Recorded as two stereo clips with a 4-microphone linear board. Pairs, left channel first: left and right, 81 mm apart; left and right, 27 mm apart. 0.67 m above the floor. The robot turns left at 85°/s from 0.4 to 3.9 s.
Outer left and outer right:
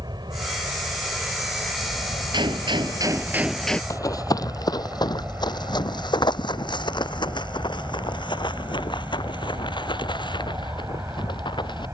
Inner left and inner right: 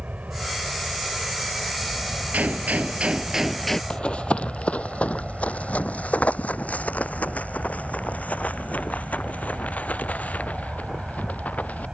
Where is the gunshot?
70° right; by 3.8 s 165° left.